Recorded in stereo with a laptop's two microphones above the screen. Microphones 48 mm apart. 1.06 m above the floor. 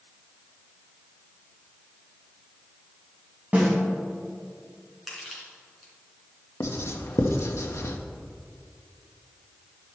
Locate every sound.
3.5 s a snare drum: 30° right (ahead or behind), 3 m
5.1 s crushing: 5° right (ahead or behind), 3.5 m
6.6 s writing: 70° left (ahead or behind), 0.8 m